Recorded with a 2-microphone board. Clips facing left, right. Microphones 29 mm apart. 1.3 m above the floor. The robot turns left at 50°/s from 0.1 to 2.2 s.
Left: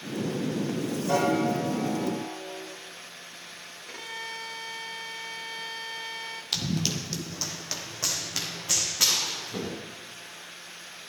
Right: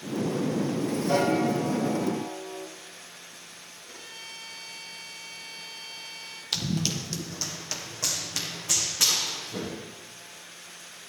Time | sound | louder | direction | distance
1.1 | a piano | even | 25° left | 5 m
3.9 | a violin | left 6 dB | 65° left (ahead or behind) | 1.4 m
6.5 | running footsteps | right 1 dB | centre (ahead or behind) | 1.5 m